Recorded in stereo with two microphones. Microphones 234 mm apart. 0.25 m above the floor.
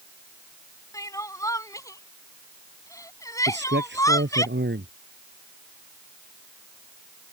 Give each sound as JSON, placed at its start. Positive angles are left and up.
{"t": 0.9, "sound": "crying", "side_deg": 15}
{"t": 3.5, "sound": "a man speaking", "side_deg": -50}